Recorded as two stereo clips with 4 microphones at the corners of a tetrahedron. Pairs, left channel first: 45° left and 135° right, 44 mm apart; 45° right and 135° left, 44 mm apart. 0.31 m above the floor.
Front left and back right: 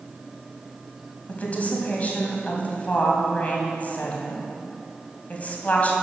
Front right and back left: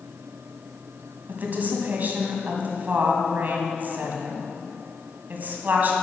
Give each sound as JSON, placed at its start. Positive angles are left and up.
{"t": 1.3, "sound": "a woman speaking", "azimuth_deg": 95, "distance_m": 2.0}